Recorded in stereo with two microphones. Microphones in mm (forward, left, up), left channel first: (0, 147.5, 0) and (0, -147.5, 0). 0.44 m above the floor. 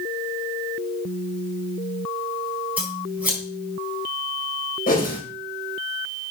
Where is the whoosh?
30° left (ahead or behind), 2.5 m.